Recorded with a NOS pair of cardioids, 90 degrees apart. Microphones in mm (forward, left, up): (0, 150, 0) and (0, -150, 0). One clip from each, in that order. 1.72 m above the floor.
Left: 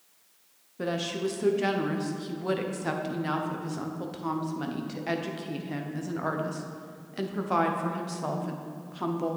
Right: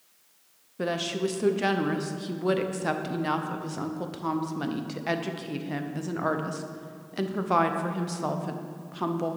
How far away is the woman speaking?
About 0.9 m.